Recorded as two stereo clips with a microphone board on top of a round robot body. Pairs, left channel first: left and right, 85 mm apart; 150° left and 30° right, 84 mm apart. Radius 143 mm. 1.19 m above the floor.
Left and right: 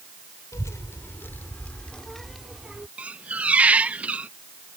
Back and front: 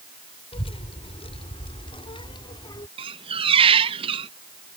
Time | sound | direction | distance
0.5 | a child speaking | 145° left | ?
3.0 | a squeak | 15° right | ?